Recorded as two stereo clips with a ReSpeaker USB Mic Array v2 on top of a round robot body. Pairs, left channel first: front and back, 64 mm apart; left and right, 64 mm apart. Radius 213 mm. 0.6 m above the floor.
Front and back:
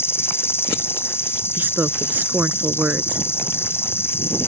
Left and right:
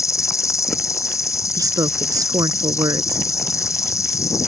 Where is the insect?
50° left.